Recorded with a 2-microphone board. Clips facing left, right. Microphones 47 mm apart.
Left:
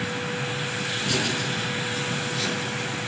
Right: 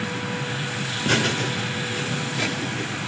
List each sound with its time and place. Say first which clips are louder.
1.1 s laughter: right 6 dB; 45° right (ahead or behind), 4 m; by 3.0 s 25° right (ahead or behind), 5.5 m